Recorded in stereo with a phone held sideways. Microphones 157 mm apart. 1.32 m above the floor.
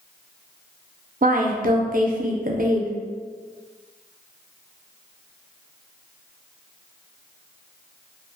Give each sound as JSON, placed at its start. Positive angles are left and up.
{"t": 1.2, "sound": "a woman speaking", "side_deg": -60, "distance_m": 0.5}